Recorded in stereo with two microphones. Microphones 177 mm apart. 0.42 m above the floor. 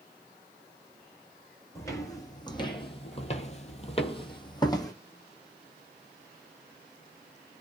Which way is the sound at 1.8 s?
20° left (ahead or behind).